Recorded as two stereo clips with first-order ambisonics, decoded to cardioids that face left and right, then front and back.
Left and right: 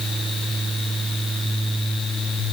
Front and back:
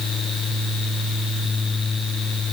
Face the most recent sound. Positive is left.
No sound to turn to.